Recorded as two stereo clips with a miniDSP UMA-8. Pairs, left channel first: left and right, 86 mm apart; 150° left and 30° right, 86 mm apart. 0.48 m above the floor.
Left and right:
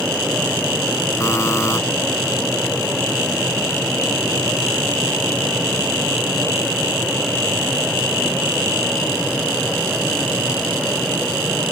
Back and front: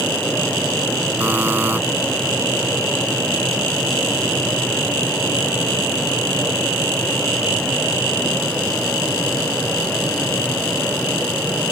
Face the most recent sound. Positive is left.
turn(degrees=35)